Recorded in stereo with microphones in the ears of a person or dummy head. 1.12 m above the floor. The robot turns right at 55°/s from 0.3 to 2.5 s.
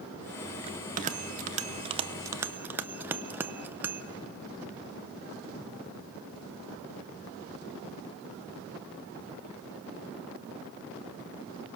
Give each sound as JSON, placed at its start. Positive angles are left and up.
{"t": 0.7, "sound": "a bell", "side_deg": -35, "distance_m": 0.8}